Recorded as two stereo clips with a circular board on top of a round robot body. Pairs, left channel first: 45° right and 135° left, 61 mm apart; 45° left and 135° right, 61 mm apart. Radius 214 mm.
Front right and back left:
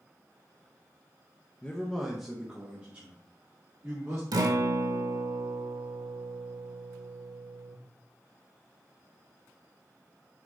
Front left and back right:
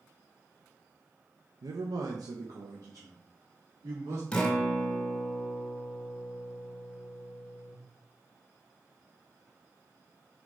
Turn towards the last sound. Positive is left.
turn(degrees=125)